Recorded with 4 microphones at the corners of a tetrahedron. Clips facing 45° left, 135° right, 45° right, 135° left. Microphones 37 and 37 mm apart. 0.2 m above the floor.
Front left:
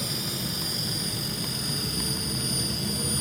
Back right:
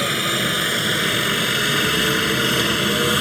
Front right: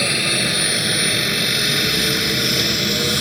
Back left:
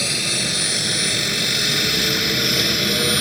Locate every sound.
0.0 s a helicopter: 110° right; by 3.2 s 145° right